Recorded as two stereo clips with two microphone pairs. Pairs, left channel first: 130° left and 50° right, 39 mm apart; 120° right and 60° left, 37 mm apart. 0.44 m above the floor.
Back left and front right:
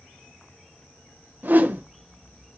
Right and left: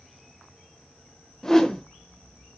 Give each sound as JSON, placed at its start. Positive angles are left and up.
{"t": 1.4, "sound": "a whoosh", "azimuth_deg": -45, "distance_m": 1.1}